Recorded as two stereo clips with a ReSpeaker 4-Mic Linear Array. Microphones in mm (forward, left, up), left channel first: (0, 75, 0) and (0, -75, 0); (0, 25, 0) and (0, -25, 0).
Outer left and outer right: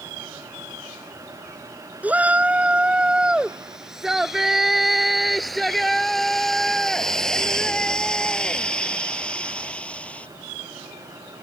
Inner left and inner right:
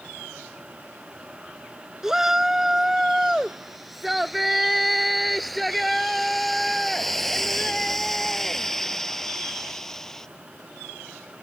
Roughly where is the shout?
Centre.